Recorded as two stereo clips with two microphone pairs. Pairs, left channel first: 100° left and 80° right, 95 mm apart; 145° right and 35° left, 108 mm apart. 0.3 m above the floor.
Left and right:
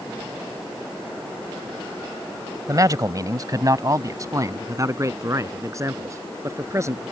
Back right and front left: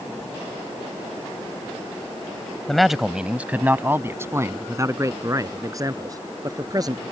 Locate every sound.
2.7 s a man speaking: 60° right; by 7.0 s 20° right